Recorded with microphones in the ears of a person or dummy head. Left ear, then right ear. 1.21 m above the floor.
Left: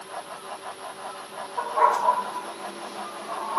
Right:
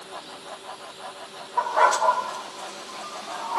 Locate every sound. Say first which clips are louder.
1.6 s a dog barking: right 2 dB; 40° right (ahead or behind), 1.7 m; by 3.6 s 10° right (ahead or behind), 2.5 m